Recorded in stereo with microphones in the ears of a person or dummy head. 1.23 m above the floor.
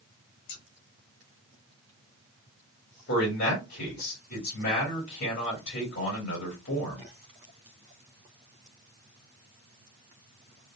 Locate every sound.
0.5 s scissors: 80° left, 1.6 m
3.1 s a man speaking: 60° left (ahead or behind), 2.5 m